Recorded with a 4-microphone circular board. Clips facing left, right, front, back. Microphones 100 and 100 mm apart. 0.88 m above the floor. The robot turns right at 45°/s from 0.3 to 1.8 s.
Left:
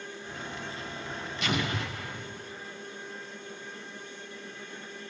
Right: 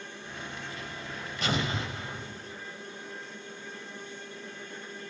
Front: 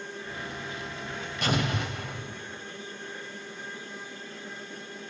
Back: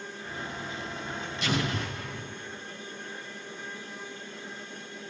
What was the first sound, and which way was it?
An explosion, 40° right.